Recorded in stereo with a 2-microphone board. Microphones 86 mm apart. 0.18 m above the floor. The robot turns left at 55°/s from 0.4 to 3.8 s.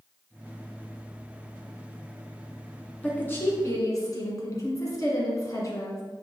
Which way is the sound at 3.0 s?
160° left.